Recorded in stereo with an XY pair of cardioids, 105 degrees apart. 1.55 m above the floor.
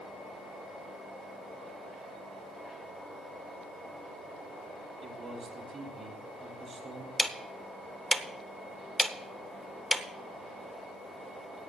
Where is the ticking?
Straight ahead, 1.0 m.